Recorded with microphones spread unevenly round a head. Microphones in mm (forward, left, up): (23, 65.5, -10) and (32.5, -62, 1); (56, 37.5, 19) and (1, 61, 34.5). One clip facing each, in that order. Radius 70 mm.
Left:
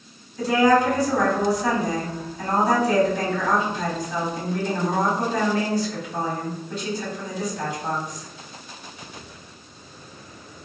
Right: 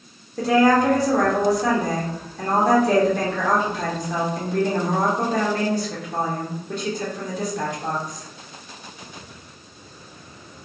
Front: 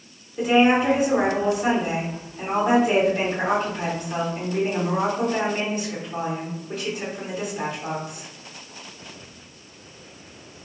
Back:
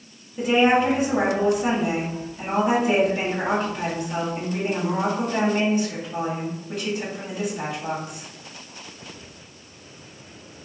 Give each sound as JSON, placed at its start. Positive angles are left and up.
{"t": 0.4, "sound": "a woman speaking", "azimuth_deg": -115, "distance_m": 1.0}